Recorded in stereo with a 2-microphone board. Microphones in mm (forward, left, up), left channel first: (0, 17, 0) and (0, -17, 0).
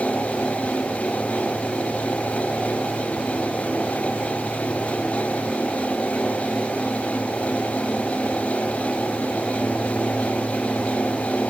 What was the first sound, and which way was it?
Only background noise.